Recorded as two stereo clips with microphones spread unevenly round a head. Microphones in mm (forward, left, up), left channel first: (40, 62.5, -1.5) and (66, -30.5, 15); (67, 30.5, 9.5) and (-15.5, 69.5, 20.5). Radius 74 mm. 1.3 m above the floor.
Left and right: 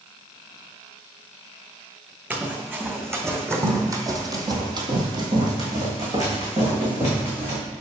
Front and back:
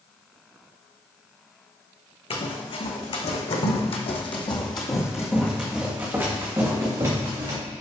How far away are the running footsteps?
About 4 m.